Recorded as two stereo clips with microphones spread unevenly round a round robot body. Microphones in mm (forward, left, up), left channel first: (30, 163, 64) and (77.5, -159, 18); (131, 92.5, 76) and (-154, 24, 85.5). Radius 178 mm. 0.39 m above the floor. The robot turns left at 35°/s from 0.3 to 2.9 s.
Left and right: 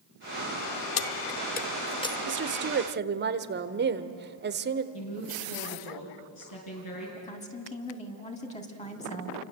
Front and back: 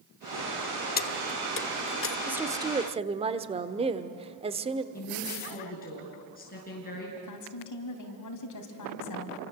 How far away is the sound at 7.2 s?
About 3 m.